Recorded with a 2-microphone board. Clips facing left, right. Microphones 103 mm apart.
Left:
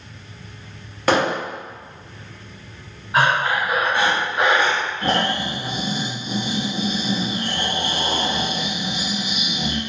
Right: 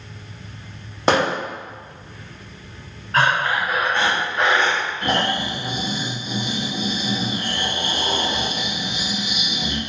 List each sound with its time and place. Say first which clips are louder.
1.1 s hammering: even; 25° right (ahead or behind), 1.0 m
3.1 s breathing: left 1 dB; 10° left (ahead or behind), 0.5 m
5.0 s snoring: left 1 dB; 30° left (ahead or behind), 0.5 m